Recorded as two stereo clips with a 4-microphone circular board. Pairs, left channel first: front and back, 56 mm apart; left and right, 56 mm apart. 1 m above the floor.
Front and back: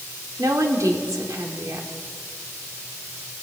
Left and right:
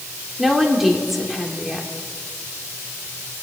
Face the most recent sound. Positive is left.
turn(degrees=-175)